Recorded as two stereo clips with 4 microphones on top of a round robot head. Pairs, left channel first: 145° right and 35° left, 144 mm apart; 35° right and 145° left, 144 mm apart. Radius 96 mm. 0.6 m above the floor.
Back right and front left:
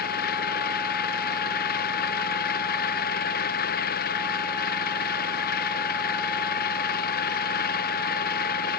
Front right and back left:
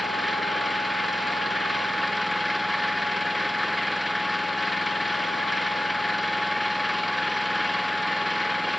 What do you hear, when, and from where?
0.0 s an engine running: 125° right